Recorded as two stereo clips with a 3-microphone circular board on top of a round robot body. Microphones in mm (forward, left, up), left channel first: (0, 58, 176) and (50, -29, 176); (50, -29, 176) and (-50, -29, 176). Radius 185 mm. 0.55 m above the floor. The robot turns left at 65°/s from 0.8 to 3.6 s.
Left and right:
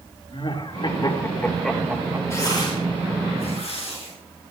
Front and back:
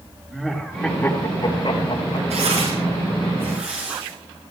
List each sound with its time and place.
0.3 s laughter: 90° left, 2.5 m; by 2.2 s straight ahead, 2.5 m
2.3 s tearing paper: 175° right, 7.5 m; by 4.1 s 100° left, 7.5 m